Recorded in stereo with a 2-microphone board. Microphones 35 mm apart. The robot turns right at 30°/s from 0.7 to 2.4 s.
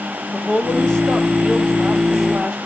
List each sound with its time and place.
0.3 s a woman speaking: 140° left, 1.8 m; by 2.6 s 165° right, 1.8 m